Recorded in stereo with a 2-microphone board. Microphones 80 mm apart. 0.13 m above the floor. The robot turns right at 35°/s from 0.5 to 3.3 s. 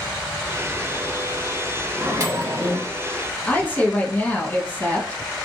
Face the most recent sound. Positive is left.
turn(degrees=20)  # may be behind; listen again after turning